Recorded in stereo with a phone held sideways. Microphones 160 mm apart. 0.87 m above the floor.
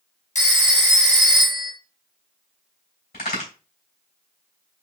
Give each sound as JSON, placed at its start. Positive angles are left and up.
{"t": 0.3, "sound": "a phone ringing", "side_deg": 50, "distance_m": 1.0}
{"t": 3.1, "sound": "a crack", "side_deg": 75, "distance_m": 3.0}